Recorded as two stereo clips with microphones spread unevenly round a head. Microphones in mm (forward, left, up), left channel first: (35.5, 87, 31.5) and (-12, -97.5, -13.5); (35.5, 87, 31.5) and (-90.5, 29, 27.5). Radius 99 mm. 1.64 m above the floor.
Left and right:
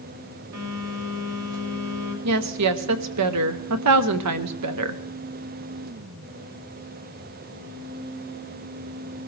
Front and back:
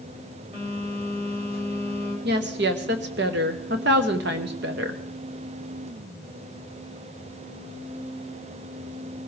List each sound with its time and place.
0.5 s a phone buzzing: 90° right, 2.5 m
2.2 s a woman speaking: 120° right, 1.0 m